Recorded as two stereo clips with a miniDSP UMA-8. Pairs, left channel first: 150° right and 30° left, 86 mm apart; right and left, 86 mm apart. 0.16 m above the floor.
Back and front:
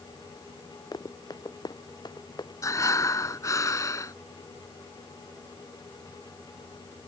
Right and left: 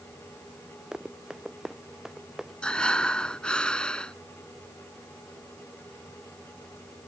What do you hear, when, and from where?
0.9 s running footsteps: 170° left; by 2.5 s 175° left
2.6 s breathing: 165° right